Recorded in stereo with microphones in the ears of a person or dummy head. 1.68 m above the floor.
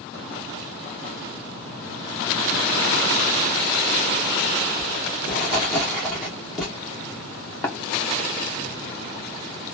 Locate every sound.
4.8 s writing: centre (ahead or behind), 1.0 m
7.6 s tapping: 15° left (ahead or behind), 0.7 m